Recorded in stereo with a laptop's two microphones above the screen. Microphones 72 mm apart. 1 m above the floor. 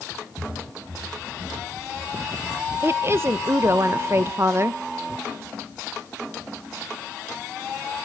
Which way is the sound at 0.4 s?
45° right (ahead or behind).